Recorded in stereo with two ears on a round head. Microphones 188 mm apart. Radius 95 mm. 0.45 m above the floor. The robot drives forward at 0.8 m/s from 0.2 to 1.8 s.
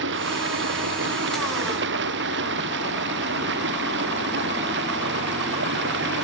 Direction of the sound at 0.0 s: 65° right (ahead or behind).